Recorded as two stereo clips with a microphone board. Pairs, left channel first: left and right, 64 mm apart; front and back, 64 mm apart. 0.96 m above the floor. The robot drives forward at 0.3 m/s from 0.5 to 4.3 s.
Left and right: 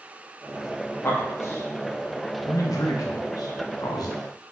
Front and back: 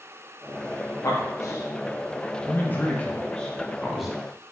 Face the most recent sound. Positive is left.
turn(degrees=105)